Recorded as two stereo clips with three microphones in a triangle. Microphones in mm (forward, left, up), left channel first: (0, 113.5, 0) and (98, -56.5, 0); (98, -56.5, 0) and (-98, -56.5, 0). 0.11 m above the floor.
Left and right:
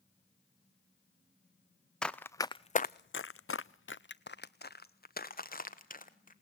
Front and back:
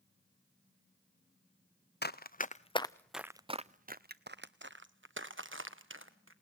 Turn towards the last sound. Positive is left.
turn(degrees=170)